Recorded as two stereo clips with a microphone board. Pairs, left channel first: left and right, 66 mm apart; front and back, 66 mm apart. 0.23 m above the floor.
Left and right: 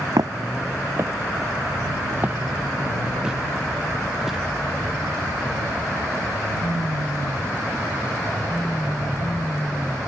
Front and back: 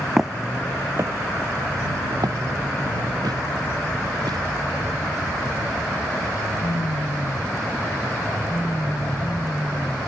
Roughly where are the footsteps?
Right.